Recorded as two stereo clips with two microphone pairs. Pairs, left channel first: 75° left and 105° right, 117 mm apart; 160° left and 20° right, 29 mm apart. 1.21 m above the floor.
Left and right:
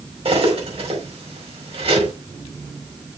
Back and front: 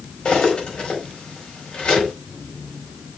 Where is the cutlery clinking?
140° right, 4.5 m.